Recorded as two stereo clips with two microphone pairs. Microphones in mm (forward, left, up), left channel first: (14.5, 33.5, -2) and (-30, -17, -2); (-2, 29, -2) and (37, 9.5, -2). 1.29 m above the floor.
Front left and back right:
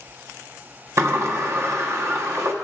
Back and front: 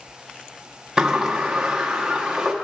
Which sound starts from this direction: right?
A sliding door, at 1.0 s.